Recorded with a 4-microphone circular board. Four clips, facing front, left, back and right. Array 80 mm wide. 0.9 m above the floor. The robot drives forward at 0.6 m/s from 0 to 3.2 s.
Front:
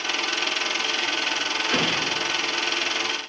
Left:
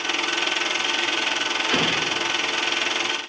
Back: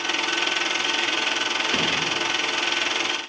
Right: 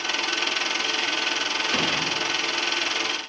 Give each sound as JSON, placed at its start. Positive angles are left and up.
{"t": 1.7, "sound": "an explosion", "azimuth_deg": 75, "distance_m": 3.5}